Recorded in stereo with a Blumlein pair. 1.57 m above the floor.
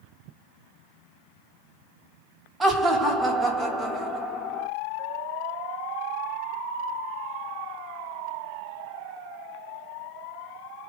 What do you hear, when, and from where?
2.6 s laughter: 10° right, 0.9 m